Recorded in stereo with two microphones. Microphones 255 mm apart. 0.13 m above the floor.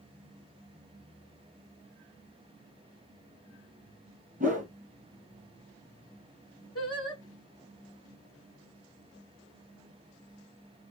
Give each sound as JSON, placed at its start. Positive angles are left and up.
{"t": 4.4, "sound": "a whoosh", "side_deg": -30, "distance_m": 1.2}
{"t": 6.8, "sound": "singing", "side_deg": 65, "distance_m": 0.9}